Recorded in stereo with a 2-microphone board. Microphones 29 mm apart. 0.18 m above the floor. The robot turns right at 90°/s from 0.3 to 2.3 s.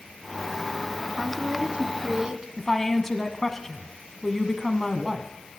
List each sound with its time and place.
1.2 s a woman speaking: 155° right, 1.2 m; by 2.5 s 55° right, 1.2 m
2.6 s a woman speaking: 15° left (ahead or behind), 1.2 m